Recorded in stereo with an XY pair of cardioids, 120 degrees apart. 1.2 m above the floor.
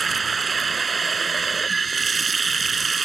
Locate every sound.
0.0 s running water: 25° right